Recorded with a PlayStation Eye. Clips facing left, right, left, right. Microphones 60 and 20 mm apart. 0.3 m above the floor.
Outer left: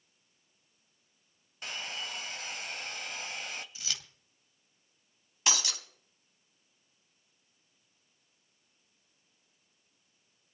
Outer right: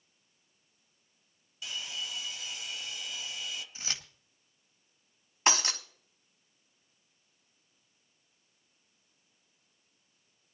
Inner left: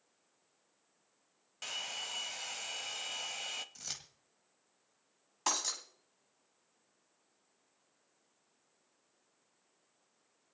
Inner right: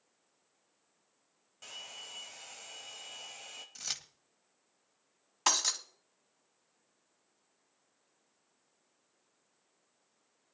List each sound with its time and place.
1.6 s a hair dryer: 50° left (ahead or behind), 0.8 m
3.8 s keys jangling: 30° right (ahead or behind), 1.2 m
5.5 s breaking glass: 35° right (ahead or behind), 1.5 m